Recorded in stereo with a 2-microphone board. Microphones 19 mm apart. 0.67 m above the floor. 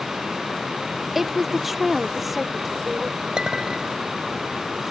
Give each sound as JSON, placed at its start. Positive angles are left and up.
{"t": 1.1, "sound": "a woman speaking", "side_deg": -15}
{"t": 3.4, "sound": "a clink", "side_deg": -45}